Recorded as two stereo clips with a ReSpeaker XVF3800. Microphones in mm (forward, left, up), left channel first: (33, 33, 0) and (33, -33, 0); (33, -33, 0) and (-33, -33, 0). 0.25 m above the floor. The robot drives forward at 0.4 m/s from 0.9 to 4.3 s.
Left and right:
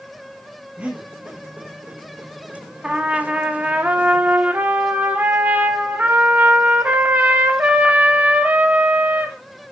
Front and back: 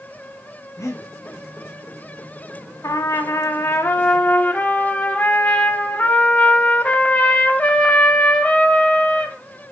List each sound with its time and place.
0.8 s breathing: 25° right, 1.3 m
2.8 s a trumpet: 20° right, 1.0 m; by 9.4 s 55° right, 0.6 m